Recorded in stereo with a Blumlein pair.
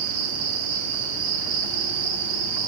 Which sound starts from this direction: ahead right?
An insect, at 0.0 s.